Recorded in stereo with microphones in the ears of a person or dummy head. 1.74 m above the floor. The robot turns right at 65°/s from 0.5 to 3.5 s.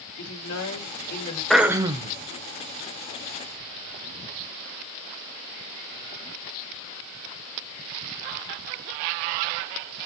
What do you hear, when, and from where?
0.2 s a woman speaking: 90° left, 3.5 m; by 1.4 s 150° left, 3.5 m
1.5 s throat clearing: 175° left, 1.0 m; by 2.2 s 140° right, 1.0 m